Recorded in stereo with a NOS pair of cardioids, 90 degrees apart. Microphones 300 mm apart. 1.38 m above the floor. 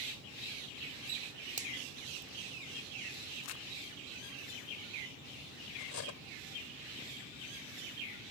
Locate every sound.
1.6 s a finger snap: 25° right
3.4 s crumpling: 60° left
5.8 s cutlery clinking: 65° left